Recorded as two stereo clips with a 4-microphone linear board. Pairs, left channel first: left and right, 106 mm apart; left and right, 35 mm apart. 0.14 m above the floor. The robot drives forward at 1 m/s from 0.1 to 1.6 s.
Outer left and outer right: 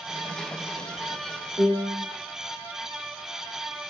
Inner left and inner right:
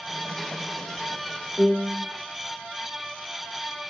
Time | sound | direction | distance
1.6 | a piano | 50° right (ahead or behind) | 2 m